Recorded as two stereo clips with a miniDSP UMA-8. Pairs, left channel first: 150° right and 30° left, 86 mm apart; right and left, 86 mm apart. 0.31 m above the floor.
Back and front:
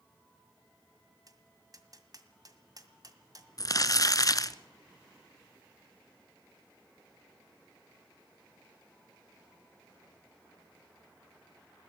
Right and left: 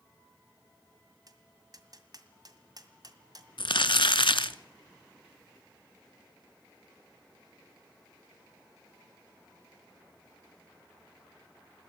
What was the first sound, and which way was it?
Tapping, 65° left.